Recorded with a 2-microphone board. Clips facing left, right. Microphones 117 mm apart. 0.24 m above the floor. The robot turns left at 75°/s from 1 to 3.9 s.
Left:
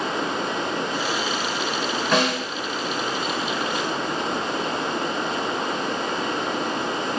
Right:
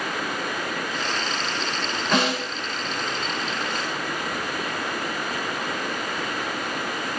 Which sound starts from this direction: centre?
A snare drum, at 2.1 s.